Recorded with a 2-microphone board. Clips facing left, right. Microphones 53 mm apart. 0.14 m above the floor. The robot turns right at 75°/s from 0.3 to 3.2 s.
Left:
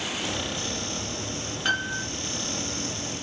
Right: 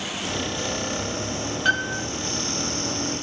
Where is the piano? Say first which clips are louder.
Right 4 dB; centre (ahead or behind), 1.6 m; by 2.0 s 10° left (ahead or behind), 1.6 m.